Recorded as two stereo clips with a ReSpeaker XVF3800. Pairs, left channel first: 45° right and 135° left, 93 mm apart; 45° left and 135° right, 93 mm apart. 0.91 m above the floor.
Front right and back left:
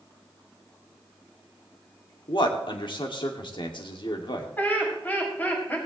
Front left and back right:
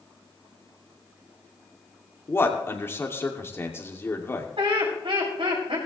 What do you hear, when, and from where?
2.3 s a man speaking: 15° right, 2.5 m
4.6 s laughter: 115° right, 6 m